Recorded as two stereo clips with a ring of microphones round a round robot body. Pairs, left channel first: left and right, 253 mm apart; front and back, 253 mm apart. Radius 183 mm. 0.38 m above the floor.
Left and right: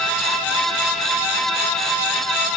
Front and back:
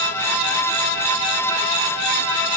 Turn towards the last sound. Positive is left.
No sound to turn to.